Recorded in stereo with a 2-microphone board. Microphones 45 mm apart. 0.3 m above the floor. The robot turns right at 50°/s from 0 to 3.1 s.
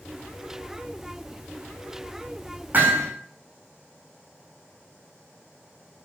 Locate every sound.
2.7 s hammering: 40° right (ahead or behind), 5.5 m; by 3.1 s 60° right (ahead or behind), 5.5 m